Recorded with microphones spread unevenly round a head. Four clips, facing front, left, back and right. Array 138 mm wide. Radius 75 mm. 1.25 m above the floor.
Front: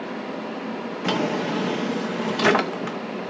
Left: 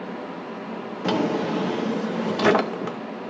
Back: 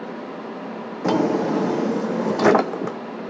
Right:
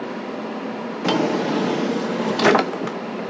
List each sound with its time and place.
1.0 s a drawer: 160° right, 0.5 m